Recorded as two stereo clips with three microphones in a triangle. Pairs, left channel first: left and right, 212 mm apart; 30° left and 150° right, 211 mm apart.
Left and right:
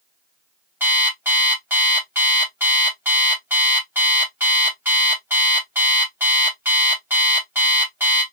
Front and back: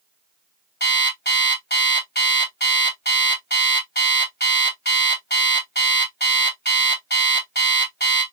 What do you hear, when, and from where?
0.8 s an alarm clock: 10° right, 2.5 m